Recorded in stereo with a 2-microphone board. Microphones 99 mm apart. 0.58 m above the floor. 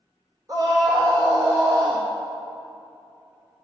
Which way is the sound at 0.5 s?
45° right (ahead or behind).